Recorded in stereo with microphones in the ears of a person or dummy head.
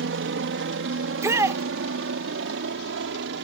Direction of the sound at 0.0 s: 60° right (ahead or behind).